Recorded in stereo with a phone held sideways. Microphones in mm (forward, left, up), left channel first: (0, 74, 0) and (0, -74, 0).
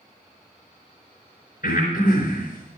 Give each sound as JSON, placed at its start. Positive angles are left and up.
{"t": 1.6, "sound": "breathing", "side_deg": 80, "distance_m": 4.0}